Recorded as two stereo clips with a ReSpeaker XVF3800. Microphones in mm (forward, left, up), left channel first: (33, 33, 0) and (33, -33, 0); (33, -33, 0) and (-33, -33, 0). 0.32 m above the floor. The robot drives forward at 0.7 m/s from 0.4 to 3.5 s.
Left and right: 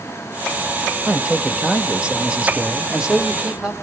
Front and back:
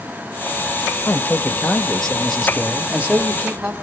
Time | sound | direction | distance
1.1 | a man speaking | 25° right | 1.7 m